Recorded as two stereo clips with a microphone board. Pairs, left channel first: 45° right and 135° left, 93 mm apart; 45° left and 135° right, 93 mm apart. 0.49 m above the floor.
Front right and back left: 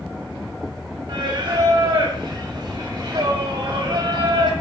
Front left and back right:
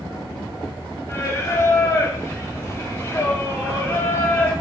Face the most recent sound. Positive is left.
turn(degrees=100)